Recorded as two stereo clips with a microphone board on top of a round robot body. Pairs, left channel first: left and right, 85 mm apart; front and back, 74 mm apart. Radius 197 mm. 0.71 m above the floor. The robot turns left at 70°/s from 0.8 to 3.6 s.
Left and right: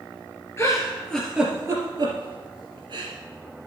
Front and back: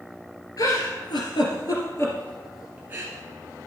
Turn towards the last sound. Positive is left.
turn(degrees=-165)